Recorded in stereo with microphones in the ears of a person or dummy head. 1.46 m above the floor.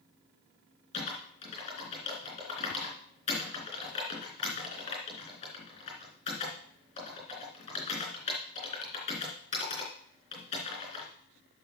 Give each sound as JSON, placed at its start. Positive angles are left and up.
{"t": 0.9, "sound": "typing on a keyboard", "side_deg": 35, "distance_m": 3.0}